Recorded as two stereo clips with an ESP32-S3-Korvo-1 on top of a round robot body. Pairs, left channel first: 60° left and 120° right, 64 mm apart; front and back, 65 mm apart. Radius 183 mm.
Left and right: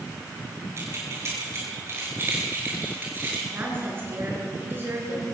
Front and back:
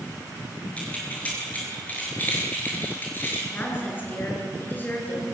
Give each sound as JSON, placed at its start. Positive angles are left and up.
{"t": 0.8, "sound": "keys jangling", "azimuth_deg": -70, "distance_m": 7.5}
{"t": 3.5, "sound": "a woman speaking", "azimuth_deg": -60, "distance_m": 7.5}